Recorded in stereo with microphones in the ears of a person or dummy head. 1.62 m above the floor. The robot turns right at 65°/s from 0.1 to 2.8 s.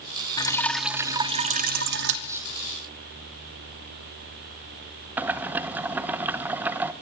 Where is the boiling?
5° right (ahead or behind), 1.0 m.